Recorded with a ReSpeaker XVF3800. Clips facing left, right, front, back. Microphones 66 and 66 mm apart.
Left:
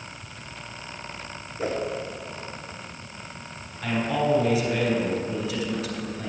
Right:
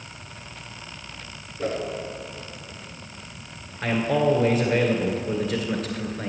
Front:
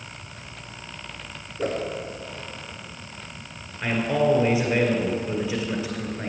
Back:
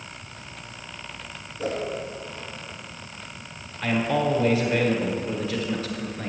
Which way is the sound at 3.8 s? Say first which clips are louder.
Right 3 dB, front 1 dB; 70° right.